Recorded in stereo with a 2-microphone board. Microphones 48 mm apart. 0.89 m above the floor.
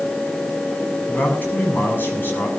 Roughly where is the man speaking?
Left.